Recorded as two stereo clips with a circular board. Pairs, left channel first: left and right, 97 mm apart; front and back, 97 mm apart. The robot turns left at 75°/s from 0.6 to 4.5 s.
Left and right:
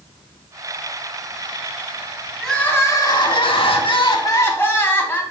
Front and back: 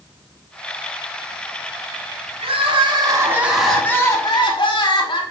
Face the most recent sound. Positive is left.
turn(degrees=25)